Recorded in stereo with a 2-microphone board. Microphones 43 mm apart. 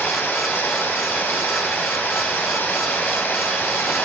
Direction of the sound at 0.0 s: 60° left (ahead or behind).